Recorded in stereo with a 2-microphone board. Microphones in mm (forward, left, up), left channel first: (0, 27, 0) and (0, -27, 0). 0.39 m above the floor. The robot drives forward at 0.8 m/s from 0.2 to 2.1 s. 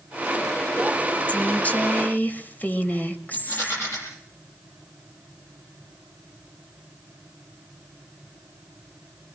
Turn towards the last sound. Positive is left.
turn(degrees=50)  # may be behind; listen again after turning